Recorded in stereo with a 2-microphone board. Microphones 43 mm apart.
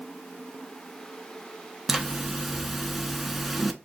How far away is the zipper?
About 0.5 m.